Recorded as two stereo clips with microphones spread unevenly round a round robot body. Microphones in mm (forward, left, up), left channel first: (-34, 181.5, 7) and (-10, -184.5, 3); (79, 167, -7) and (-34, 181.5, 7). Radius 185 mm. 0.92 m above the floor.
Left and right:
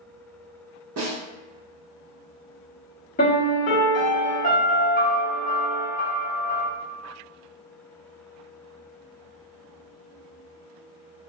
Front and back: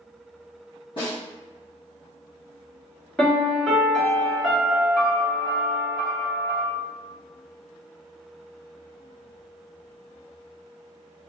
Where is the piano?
55° left, 1.0 m.